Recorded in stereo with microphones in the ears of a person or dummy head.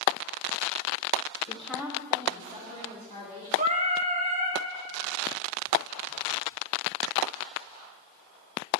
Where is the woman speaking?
20° left (ahead or behind), 0.8 m; by 3.5 s 40° right (ahead or behind), 3 m.